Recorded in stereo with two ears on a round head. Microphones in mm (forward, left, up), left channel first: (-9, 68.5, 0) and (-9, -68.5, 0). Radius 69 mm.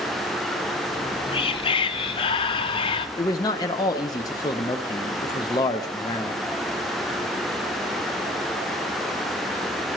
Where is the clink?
No clink in this recording.